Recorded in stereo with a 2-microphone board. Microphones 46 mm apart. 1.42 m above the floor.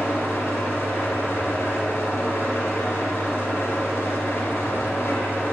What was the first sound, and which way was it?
An engine running, 80° left.